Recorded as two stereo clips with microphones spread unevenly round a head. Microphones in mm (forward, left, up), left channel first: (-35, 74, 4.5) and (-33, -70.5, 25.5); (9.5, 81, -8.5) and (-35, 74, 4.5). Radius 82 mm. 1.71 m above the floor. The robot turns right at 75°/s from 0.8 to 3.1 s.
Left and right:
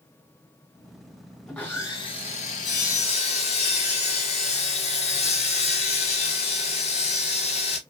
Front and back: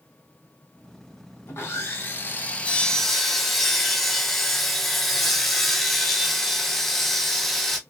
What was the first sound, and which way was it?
Sawing, 5° right.